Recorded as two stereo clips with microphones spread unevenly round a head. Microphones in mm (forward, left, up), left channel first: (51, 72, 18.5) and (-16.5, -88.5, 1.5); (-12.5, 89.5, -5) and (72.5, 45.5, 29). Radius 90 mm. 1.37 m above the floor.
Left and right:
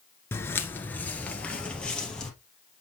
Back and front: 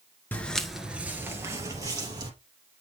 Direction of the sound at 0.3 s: 55° left.